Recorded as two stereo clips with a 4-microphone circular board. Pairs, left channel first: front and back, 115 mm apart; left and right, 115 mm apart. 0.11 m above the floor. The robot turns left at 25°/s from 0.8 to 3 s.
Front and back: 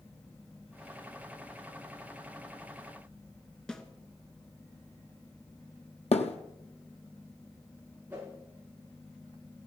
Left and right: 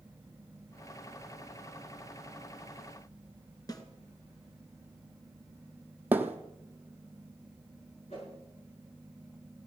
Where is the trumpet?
I don't hear a trumpet.